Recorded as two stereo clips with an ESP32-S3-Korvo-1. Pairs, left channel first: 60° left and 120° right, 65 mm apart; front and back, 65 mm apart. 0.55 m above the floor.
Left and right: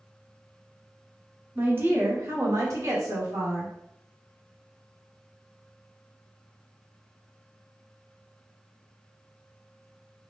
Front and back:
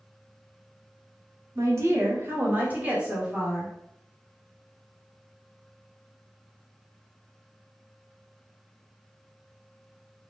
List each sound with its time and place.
1.6 s a woman speaking: 170° right, 1.3 m; by 3.7 s 100° right, 2.0 m